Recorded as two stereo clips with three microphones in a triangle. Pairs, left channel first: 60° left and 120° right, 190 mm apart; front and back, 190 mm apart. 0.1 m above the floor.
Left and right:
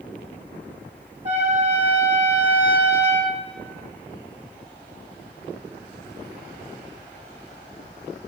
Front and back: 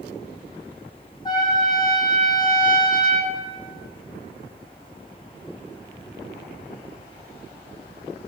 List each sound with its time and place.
1.2 s a trumpet: 70° right, 1.2 m